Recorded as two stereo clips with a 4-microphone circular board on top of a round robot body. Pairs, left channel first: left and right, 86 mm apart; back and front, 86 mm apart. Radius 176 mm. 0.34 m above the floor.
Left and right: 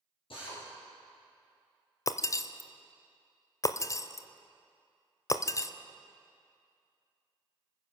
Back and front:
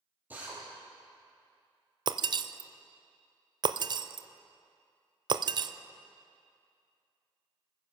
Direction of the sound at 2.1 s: 35° left.